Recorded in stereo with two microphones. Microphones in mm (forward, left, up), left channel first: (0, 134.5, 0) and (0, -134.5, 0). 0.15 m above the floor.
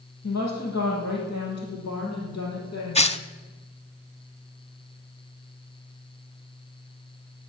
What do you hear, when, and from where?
0.2 s a woman speaking: 75° left (ahead or behind), 5.5 m; by 3.1 s 70° left (ahead or behind), 5.5 m
3.0 s tearing paper: 25° left (ahead or behind), 0.6 m